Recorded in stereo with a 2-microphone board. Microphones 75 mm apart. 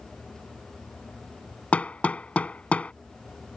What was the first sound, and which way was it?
Hammering, 15° left (ahead or behind).